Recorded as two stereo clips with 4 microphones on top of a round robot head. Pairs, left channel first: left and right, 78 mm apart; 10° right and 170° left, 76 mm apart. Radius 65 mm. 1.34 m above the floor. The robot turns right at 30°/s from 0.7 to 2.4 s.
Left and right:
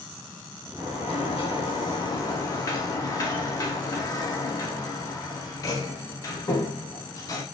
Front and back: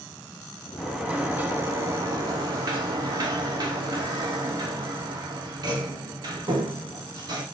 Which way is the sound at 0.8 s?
90° left.